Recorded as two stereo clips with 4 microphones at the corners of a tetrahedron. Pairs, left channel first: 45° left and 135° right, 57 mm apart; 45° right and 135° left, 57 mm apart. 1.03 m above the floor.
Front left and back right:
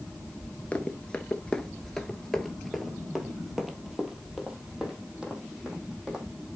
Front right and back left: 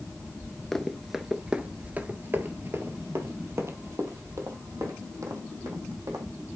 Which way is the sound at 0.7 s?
30° left.